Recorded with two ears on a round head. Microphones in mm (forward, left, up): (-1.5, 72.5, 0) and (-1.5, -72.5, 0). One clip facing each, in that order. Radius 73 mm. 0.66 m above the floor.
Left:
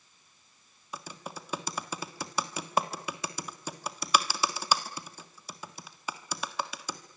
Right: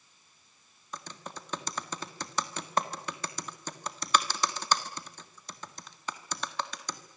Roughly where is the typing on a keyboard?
Centre.